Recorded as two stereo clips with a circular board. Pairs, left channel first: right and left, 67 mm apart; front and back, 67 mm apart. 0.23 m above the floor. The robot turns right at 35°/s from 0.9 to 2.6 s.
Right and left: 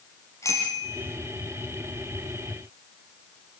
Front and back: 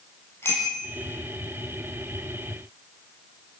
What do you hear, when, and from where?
0.4 s a bicycle bell: 50° right, 6 m; by 1.0 s 45° right, 6 m